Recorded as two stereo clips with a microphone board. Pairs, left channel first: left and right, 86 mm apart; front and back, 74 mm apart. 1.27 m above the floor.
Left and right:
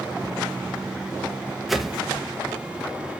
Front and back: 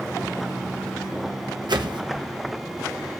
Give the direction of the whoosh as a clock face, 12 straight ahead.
6 o'clock.